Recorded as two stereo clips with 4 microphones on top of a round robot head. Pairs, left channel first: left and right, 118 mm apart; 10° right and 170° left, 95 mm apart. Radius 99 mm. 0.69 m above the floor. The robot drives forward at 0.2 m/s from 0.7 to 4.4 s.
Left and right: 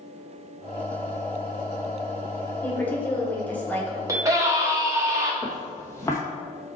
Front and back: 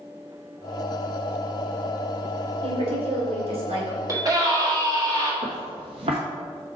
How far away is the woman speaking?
About 2.0 m.